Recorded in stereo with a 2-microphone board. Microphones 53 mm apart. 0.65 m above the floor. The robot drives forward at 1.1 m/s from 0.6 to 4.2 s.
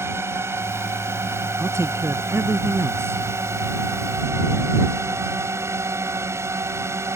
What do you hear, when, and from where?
0.0 s a drone: 55° right (ahead or behind); by 7.2 s 60° right (ahead or behind)
1.6 s a man speaking: 65° right (ahead or behind); by 3.2 s 50° right (ahead or behind)